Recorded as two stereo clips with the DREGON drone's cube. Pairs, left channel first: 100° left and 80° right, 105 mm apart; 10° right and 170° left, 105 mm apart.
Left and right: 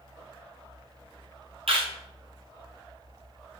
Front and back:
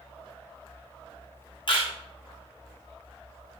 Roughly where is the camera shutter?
Ahead right.